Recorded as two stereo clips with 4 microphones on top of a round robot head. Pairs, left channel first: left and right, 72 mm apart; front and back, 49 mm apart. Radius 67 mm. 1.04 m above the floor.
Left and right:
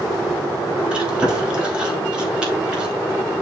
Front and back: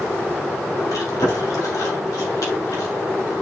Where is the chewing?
15° right, 2.5 m.